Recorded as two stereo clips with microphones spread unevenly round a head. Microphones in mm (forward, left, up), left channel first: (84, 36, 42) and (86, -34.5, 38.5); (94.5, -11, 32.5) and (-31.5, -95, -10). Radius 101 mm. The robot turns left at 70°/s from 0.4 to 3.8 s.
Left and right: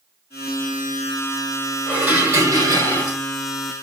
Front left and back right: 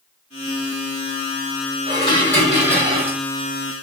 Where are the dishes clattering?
10° right, 1.8 m; by 3.2 s 100° right, 1.8 m.